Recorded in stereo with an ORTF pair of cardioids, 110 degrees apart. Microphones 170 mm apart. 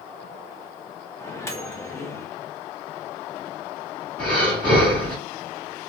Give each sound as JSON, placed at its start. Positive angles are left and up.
{"t": 1.2, "sound": "a microwave", "azimuth_deg": 15, "distance_m": 0.6}
{"t": 4.2, "sound": "breathing", "azimuth_deg": 10, "distance_m": 1.2}